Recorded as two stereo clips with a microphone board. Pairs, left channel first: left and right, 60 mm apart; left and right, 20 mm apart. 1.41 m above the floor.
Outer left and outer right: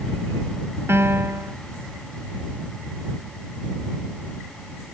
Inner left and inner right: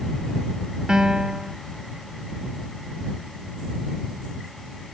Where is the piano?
45° right (ahead or behind).